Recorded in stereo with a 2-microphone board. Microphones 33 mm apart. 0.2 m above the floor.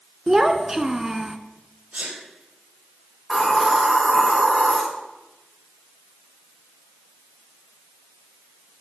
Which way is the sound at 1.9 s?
70° right (ahead or behind).